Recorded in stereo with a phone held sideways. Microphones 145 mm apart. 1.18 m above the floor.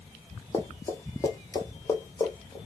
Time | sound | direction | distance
0.5 | running footsteps | 20° left (ahead or behind) | 1.2 m